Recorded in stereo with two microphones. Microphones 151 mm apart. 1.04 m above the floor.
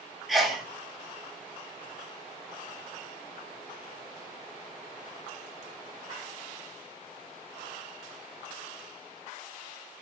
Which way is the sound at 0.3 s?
Centre (ahead or behind).